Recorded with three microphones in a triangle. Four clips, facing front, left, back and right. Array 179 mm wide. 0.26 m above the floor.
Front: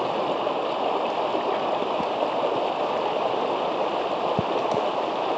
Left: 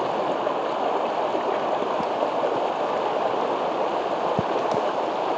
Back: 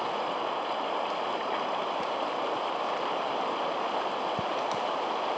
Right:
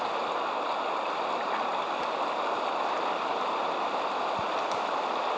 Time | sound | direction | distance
0.0 | running water | 45° left | ?